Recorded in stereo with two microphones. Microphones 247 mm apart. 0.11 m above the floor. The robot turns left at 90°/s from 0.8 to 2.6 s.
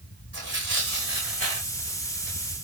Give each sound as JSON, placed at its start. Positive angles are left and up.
{"t": 0.3, "sound": "tearing paper", "side_deg": -80, "distance_m": 5.5}